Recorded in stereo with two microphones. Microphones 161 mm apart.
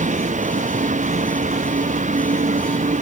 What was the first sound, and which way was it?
A vehicle, 50° right (ahead or behind).